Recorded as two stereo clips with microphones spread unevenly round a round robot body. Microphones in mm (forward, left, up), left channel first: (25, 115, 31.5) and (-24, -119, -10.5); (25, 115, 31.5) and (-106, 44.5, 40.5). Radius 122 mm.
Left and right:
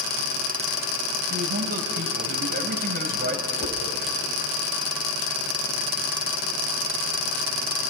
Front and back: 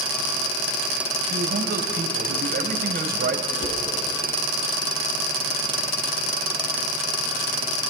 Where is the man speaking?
155° right, 3 m.